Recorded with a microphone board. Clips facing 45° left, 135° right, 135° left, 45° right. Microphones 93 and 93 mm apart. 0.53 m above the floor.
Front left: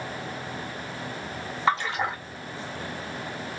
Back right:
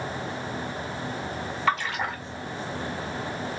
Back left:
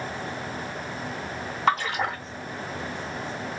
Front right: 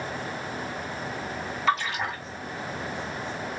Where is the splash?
100° left, 1.5 m.